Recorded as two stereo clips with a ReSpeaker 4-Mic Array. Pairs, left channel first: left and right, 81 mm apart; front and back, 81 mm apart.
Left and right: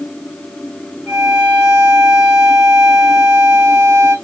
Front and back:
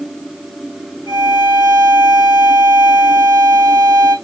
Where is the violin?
170° right, 5 m.